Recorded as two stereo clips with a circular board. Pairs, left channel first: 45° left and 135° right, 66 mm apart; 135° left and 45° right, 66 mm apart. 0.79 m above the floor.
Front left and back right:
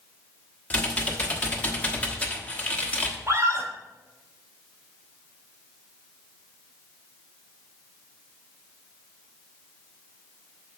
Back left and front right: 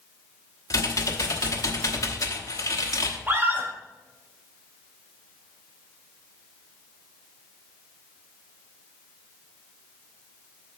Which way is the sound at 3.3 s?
95° right.